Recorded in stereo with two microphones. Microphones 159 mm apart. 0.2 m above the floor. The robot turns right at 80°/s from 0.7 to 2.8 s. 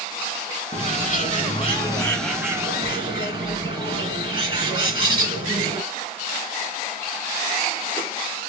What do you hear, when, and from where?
0.7 s a bird: 55° left, 2 m; by 5.8 s 135° right, 2 m